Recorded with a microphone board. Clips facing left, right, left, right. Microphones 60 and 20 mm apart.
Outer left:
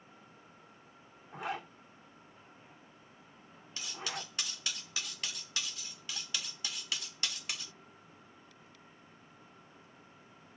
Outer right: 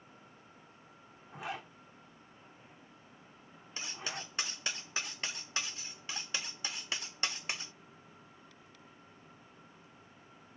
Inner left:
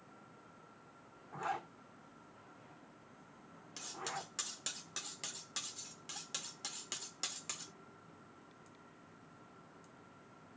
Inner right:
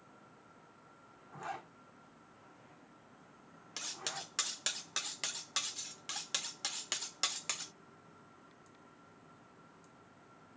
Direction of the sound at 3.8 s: 30° right (ahead or behind).